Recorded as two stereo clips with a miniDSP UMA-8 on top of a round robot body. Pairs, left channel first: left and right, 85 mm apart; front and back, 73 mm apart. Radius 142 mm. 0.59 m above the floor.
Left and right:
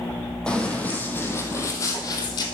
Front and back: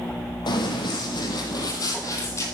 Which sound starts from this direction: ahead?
Running footsteps, at 0.5 s.